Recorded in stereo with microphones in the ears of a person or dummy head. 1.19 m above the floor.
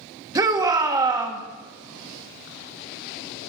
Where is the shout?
20° right (ahead or behind), 1.3 m.